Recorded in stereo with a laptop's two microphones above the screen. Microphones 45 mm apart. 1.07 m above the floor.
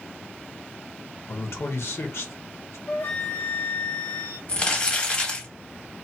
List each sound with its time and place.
1.3 s a man speaking: 65° left (ahead or behind), 0.7 m
2.9 s a flute: 45° left (ahead or behind), 1.2 m
4.5 s crumpling: 20° left (ahead or behind), 1.4 m